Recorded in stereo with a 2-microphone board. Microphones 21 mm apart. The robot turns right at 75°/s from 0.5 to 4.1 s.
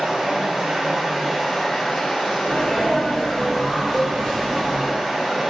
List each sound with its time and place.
0.0 s running water: 70° right, 1.9 m; by 5.5 s 160° right, 1.9 m
2.4 s a sneeze: 15° right (ahead or behind), 1.1 m; by 4.9 s 20° left (ahead or behind), 1.1 m
3.9 s a cowbell: 25° left (ahead or behind), 1.1 m; by 4.1 s 15° left (ahead or behind), 1.1 m